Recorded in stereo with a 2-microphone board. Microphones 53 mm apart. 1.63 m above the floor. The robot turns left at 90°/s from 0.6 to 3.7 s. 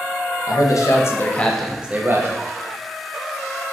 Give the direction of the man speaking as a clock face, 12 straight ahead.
9 o'clock.